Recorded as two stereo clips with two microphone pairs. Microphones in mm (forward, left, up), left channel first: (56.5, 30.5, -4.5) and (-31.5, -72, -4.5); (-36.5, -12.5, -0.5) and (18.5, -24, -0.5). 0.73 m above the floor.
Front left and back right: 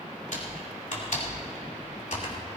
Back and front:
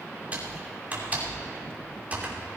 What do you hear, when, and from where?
0.3 s typing on a keyboard: 45° left, 2.5 m